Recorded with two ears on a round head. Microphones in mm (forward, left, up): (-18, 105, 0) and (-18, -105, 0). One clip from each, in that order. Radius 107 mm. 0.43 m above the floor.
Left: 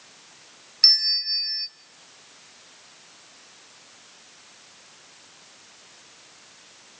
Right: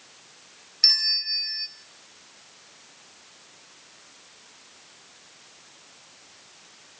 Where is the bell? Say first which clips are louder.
Left 2 dB; centre (ahead or behind), 1.3 m.